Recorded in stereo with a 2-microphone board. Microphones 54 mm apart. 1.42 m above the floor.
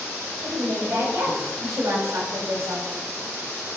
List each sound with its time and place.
0.4 s a woman speaking: 75° right (ahead or behind), 5 m; by 2.9 s 80° right, 4 m